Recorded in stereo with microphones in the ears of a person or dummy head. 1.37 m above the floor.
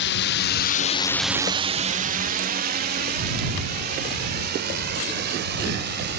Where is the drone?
60° left (ahead or behind); by 6.2 s 55° right (ahead or behind).